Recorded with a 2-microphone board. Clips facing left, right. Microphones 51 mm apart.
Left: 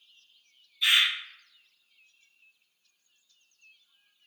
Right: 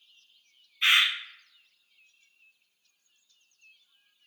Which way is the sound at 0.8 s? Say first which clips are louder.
Right 1 dB; 45° right (ahead or behind).